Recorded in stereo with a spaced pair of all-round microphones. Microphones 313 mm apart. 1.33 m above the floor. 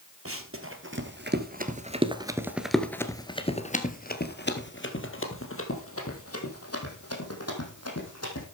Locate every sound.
0.2 s running footsteps: 45° right (ahead or behind), 2.0 m; by 8.4 s 55° left (ahead or behind), 4 m